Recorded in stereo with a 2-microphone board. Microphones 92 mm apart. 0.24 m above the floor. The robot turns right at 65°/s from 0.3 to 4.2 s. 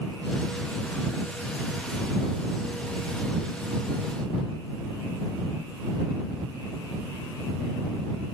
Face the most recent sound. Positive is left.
No sound to turn to.